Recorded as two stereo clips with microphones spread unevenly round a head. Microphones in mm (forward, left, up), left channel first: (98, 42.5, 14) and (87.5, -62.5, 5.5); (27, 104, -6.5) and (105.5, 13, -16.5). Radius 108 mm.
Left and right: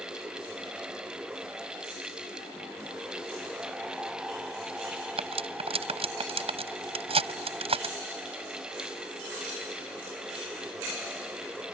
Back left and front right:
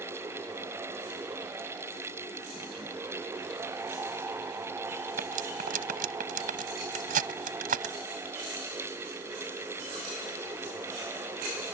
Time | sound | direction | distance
5.2 | cutlery clinking | 70° right | ?